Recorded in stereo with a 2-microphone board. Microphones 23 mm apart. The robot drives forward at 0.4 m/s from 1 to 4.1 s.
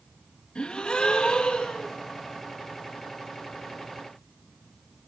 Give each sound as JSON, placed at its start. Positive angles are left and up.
{"t": 0.6, "sound": "a gasp", "side_deg": 50, "distance_m": 3.0}